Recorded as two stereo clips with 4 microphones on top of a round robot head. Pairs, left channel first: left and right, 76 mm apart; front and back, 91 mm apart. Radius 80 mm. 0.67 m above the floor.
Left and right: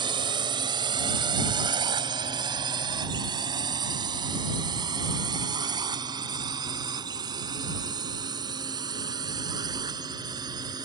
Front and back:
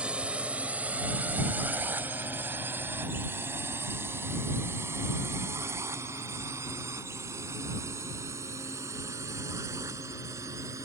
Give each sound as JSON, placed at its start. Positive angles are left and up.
{"t": 0.0, "sound": "a drone", "azimuth_deg": -100}